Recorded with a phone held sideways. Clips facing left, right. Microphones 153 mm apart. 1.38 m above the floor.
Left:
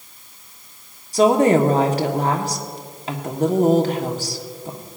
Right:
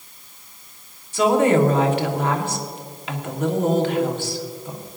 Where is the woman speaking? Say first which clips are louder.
Left 2 dB; 40° left (ahead or behind), 1.2 m.